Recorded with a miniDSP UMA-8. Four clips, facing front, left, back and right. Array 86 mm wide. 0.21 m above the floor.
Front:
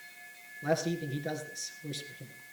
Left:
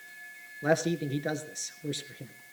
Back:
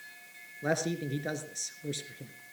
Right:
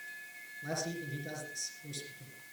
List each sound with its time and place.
0.6 s a man speaking: 110° left, 2.5 m